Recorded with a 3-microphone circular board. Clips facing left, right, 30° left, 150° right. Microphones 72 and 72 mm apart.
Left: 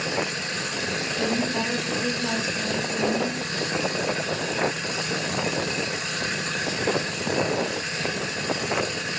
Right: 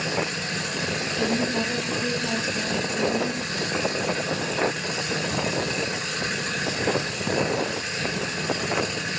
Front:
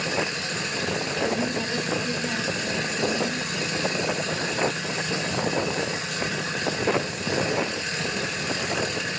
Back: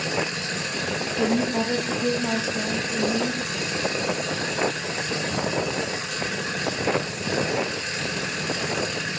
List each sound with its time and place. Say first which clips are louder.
1.1 s a woman speaking: right 1 dB, back 5 dB; 175° left, 6.5 m